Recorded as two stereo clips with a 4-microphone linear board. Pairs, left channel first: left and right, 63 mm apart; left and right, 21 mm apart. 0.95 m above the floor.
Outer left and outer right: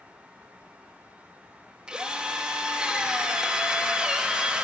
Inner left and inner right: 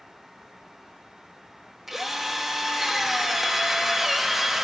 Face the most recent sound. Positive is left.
turn(degrees=-15)  # may be behind; listen again after turning